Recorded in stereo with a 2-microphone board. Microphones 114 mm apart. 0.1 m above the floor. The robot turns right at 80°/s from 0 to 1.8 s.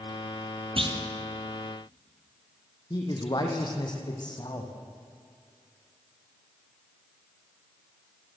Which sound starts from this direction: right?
A clunk, at 0.8 s.